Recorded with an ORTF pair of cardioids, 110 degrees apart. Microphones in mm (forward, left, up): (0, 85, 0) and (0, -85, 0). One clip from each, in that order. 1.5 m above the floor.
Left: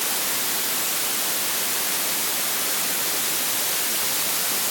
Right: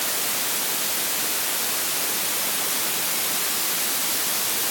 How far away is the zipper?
No zipper in this recording.